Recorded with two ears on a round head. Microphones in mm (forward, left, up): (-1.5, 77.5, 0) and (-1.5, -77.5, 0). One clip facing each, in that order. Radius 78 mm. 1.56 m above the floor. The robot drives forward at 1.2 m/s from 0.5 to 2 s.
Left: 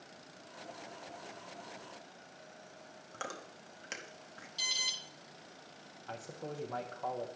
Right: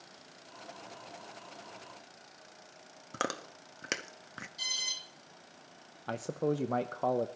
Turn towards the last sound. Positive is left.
turn(degrees=-65)  # may be behind; listen again after turning